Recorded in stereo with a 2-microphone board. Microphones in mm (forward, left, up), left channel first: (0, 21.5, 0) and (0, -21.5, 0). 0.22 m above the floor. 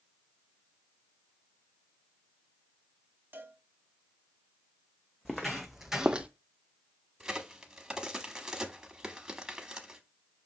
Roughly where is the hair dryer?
I don't hear a hair dryer.